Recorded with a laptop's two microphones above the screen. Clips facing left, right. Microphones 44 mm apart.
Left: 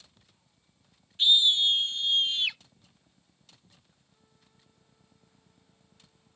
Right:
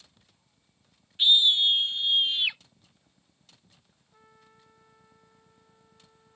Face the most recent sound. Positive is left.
turn(degrees=-65)  # may be behind; listen again after turning